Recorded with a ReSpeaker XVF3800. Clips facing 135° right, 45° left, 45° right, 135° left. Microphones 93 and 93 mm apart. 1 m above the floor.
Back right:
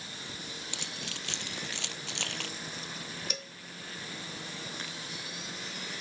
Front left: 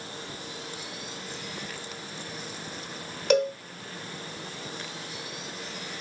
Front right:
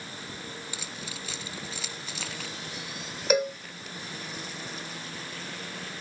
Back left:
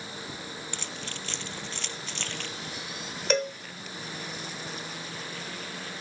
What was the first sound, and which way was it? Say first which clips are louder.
Keys jangling: front left 3 dB, back left 1 dB; 130° right.